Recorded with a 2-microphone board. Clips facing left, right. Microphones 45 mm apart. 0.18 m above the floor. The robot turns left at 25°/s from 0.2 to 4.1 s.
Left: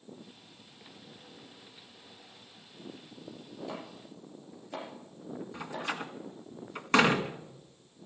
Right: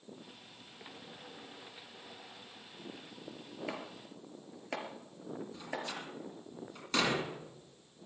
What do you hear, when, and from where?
3.7 s chopping: 60° right (ahead or behind), 4.5 m; by 5.9 s 70° right (ahead or behind), 4.5 m
5.5 s a door slam: 50° left (ahead or behind), 1.6 m